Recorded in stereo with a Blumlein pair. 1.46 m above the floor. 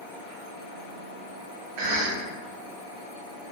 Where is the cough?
50° right, 0.6 m.